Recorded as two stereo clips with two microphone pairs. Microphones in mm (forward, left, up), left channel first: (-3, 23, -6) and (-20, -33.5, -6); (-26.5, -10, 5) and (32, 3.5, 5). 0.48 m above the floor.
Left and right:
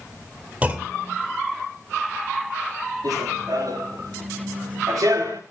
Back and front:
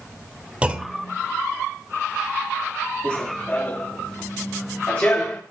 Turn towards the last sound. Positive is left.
turn(degrees=-100)